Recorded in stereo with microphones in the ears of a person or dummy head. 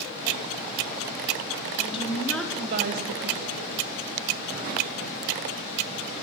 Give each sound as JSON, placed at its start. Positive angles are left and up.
{"t": 1.8, "sound": "a woman speaking", "side_deg": 35, "distance_m": 1.1}